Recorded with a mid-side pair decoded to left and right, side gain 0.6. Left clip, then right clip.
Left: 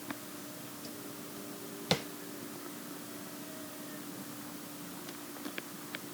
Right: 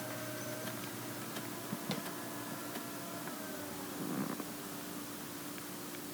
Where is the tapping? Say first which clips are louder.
Left 11 dB; 55° left.